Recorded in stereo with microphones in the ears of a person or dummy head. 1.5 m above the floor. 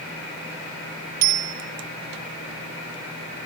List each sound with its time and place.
1.2 s a bicycle bell: 55° right (ahead or behind), 3.5 m